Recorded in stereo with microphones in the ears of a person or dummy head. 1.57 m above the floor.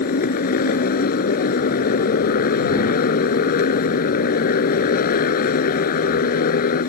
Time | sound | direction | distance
0.0 | a motorcycle | 50° left (ahead or behind) | ?